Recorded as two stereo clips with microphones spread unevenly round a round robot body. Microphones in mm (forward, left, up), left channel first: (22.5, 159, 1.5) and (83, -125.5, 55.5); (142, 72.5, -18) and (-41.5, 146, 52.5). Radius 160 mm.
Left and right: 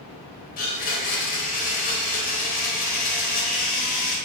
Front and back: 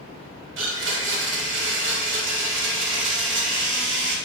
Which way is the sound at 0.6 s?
135° left.